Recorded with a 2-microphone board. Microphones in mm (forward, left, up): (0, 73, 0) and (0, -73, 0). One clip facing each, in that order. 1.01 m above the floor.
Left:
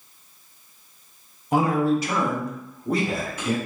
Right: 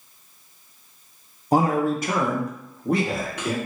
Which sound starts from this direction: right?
A man speaking, at 1.5 s.